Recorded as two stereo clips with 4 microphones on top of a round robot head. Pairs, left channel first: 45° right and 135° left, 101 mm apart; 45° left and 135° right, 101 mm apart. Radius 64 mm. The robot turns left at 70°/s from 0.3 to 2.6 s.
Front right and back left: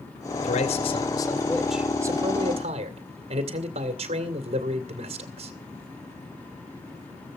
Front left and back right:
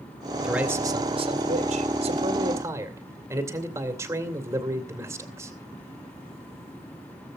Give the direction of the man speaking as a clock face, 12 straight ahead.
2 o'clock.